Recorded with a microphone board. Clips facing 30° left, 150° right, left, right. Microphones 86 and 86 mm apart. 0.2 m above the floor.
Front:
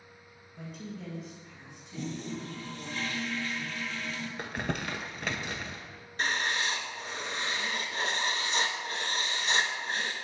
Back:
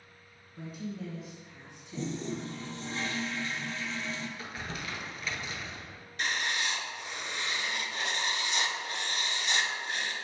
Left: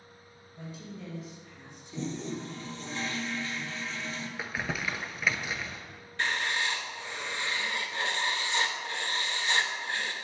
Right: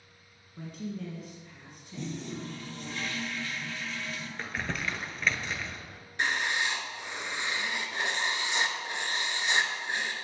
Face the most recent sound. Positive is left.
turn(degrees=-20)